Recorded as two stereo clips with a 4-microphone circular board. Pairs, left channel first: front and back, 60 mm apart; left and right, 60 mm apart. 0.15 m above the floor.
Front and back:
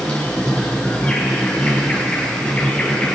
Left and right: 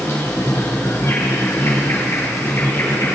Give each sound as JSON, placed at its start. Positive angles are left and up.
{"t": 0.0, "sound": "an insect", "azimuth_deg": 65, "distance_m": 2.0}